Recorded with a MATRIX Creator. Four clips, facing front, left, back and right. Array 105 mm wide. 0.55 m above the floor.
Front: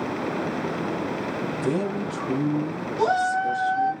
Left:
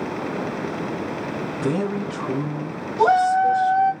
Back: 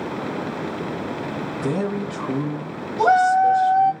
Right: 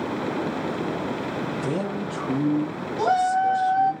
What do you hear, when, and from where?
1.6 s a man speaking: 125° left, 2 m; by 4.0 s 165° left, 2 m
3.0 s a shout: 135° left, 1.9 m